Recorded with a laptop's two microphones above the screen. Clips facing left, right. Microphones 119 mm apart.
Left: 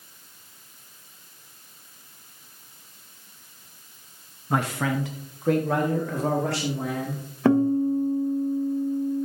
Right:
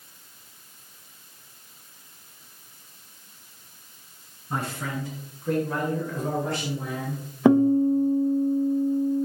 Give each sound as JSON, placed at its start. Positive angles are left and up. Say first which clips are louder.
{"t": 4.5, "sound": "a man speaking", "louder": "left 6 dB", "side_deg": 75, "distance_m": 0.9}
{"t": 7.5, "sound": "a guitar", "louder": "right 2 dB", "side_deg": -15, "distance_m": 0.6}